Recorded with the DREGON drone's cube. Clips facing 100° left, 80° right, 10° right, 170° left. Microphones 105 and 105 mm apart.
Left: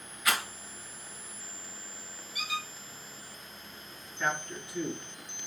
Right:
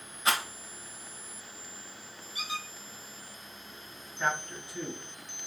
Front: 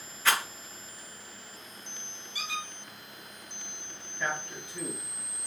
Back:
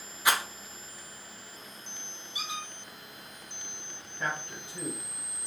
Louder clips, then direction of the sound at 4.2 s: Right 1 dB, front 1 dB; 150° right.